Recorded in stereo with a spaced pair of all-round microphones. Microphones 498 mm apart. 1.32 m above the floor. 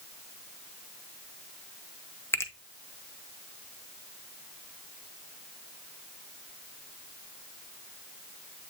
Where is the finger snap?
5° left (ahead or behind), 0.9 m.